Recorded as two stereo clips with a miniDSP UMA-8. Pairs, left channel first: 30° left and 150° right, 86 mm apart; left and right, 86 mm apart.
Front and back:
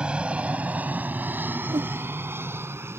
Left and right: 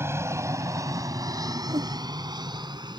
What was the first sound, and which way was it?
An aircraft, 85° right.